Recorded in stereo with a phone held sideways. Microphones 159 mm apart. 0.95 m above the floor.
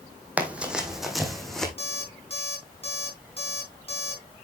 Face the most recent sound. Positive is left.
turn(degrees=40)  # may be behind; listen again after turning